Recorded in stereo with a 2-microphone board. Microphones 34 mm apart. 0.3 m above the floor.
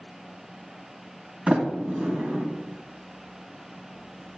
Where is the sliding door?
40° right (ahead or behind), 1.8 m.